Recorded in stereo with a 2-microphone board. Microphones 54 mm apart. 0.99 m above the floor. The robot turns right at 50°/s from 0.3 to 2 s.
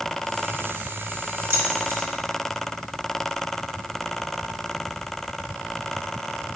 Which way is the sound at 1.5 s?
55° right (ahead or behind).